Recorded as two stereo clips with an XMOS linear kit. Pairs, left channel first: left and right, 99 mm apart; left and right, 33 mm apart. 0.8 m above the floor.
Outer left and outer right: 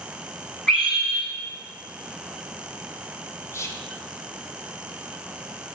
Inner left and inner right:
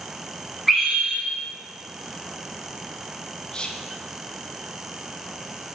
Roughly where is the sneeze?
No sneeze in this recording.